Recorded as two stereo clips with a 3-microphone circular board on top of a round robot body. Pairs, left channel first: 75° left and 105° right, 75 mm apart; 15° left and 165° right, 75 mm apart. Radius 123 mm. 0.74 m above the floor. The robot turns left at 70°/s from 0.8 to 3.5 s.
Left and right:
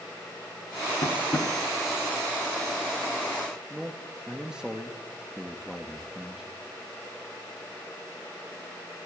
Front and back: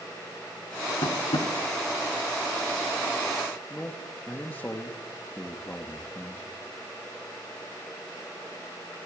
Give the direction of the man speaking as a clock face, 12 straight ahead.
1 o'clock.